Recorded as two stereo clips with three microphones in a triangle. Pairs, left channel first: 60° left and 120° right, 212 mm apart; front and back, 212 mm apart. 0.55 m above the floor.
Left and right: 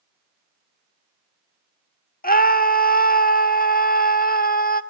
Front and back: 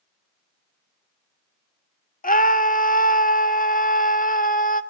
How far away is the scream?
About 1.2 m.